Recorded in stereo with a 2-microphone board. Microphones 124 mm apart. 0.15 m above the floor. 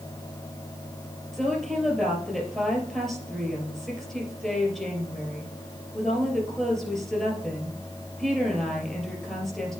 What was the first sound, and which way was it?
A woman speaking, 5° left (ahead or behind).